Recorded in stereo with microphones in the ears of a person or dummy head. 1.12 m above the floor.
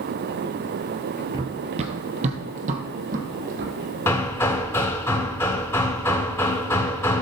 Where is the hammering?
15° left (ahead or behind), 0.8 m.